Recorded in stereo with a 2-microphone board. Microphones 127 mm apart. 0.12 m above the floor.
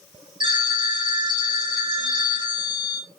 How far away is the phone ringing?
About 1.3 m.